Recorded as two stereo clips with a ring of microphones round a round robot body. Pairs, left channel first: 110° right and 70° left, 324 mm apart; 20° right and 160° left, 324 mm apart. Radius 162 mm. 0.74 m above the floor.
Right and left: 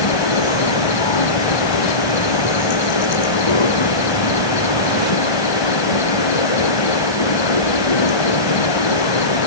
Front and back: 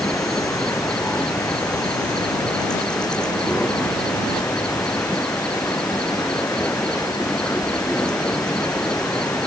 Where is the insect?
110° right.